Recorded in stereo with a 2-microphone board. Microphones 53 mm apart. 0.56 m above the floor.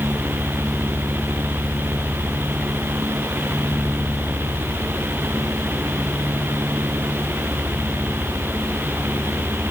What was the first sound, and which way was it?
Only background noise.